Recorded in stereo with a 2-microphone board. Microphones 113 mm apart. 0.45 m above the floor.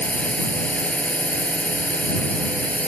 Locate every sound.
0.0 s a drone: 10° left (ahead or behind)